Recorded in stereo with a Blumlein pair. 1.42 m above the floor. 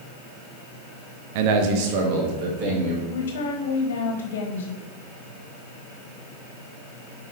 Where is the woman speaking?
55° left, 1.3 m.